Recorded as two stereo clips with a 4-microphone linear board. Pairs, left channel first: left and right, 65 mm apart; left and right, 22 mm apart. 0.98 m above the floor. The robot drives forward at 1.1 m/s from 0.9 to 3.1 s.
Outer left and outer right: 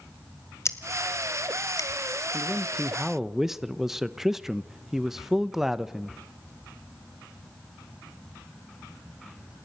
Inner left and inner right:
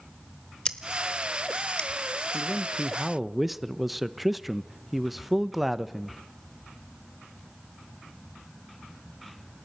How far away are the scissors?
About 1.4 m.